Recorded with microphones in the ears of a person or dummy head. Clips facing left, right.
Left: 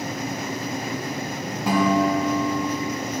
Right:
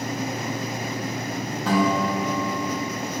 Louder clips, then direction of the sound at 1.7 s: Left 2 dB; 15° left (ahead or behind).